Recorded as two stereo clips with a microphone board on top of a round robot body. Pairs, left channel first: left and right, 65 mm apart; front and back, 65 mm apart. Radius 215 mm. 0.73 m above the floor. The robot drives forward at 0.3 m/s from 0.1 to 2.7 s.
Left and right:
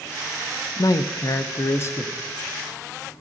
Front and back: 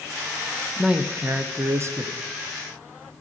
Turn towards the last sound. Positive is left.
turn(degrees=150)